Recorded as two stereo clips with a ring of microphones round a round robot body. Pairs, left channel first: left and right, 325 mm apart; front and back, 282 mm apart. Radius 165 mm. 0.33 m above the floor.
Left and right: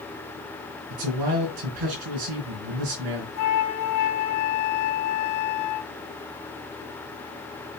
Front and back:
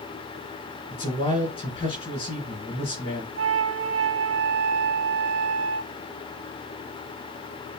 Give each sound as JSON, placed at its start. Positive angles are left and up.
{"t": 0.9, "sound": "a man speaking", "azimuth_deg": -75, "distance_m": 4.0}
{"t": 3.4, "sound": "a flute", "azimuth_deg": 130, "distance_m": 0.8}